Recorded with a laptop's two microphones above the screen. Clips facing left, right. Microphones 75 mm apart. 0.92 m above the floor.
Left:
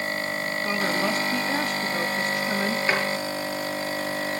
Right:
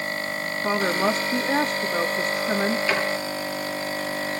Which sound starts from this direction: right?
A woman speaking, at 0.6 s.